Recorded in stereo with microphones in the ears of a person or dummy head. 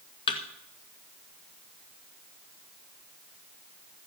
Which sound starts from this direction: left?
A thud, at 0.3 s.